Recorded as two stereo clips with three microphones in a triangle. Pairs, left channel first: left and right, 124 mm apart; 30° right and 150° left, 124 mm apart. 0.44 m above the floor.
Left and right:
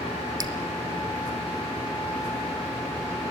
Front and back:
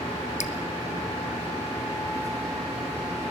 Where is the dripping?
30° right, 1.0 m.